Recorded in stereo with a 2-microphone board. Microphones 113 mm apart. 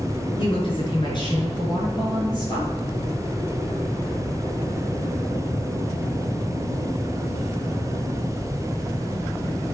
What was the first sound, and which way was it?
A woman speaking, 45° left (ahead or behind).